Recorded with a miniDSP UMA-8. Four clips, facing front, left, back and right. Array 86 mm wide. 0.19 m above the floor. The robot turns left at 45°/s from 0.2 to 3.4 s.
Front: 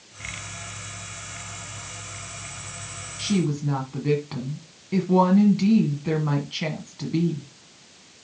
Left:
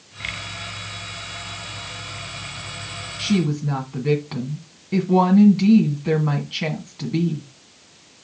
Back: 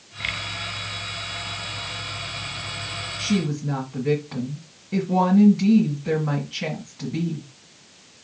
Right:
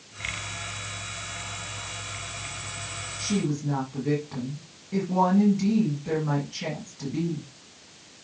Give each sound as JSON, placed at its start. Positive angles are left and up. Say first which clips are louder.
{"t": 3.2, "sound": "a woman speaking", "louder": "left 6 dB, even", "azimuth_deg": 70, "distance_m": 1.6}